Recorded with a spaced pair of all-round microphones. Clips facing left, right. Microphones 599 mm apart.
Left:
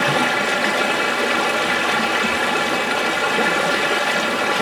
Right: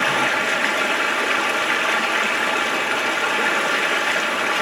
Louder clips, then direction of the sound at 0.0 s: Left 4 dB; 60° left (ahead or behind).